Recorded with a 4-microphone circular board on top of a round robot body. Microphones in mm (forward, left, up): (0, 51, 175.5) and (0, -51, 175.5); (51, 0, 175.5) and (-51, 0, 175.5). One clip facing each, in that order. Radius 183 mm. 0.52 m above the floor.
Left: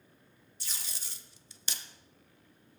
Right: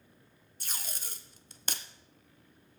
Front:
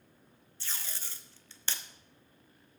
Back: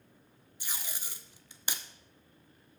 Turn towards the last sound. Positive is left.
turn(degrees=-110)